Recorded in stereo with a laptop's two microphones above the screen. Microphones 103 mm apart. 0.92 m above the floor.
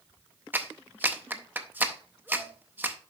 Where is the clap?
20° right (ahead or behind), 0.5 m.